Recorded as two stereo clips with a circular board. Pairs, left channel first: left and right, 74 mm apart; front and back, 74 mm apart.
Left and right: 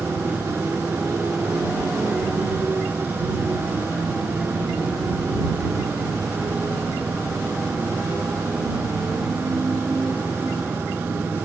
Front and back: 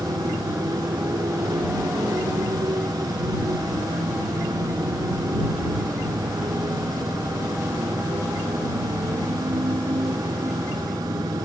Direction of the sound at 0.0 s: 155° right.